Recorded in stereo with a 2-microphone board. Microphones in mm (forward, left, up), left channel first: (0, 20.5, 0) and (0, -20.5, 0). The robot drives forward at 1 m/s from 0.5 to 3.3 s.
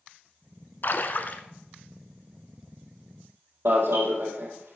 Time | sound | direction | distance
0.8 | a splash | 50° left (ahead or behind) | 0.8 m
3.6 | an alarm | 75° right (ahead or behind) | 4 m